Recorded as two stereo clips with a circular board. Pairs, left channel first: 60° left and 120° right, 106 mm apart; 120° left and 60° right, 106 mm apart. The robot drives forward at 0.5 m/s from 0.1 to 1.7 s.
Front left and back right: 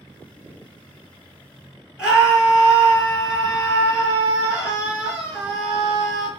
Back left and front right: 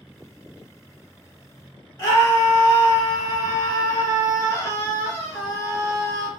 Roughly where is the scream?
Behind.